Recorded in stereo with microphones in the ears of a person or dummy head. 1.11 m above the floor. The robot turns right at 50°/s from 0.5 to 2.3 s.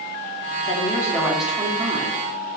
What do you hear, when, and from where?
0.7 s a woman speaking: 145° left, 3 m; by 2.2 s 140° right, 3 m